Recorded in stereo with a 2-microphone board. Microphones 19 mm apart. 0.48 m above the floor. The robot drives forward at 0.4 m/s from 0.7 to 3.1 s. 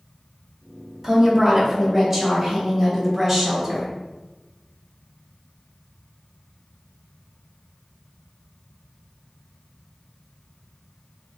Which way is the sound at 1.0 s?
25° right (ahead or behind).